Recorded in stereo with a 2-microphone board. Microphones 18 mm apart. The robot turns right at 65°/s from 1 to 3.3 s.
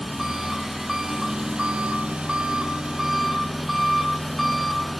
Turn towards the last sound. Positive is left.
turn(degrees=-10)